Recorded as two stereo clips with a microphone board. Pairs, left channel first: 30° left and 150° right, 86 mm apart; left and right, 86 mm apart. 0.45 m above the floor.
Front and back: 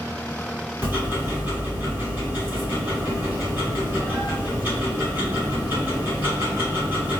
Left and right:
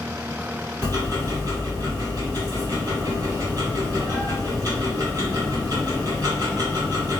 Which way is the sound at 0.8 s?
90° right.